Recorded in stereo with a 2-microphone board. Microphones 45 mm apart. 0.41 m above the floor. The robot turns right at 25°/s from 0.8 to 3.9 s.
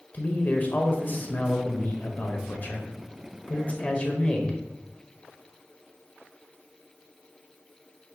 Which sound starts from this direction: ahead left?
A man speaking, at 0.1 s.